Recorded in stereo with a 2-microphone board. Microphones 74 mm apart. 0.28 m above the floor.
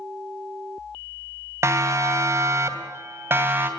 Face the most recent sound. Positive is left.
turn(degrees=-30)  # may be behind; listen again after turning